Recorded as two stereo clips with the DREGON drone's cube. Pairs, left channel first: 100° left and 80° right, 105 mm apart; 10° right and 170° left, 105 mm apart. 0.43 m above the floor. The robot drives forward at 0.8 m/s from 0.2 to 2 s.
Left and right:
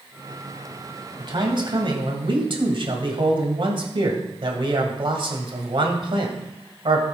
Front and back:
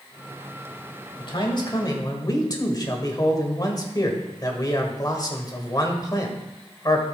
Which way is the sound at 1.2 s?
45° right.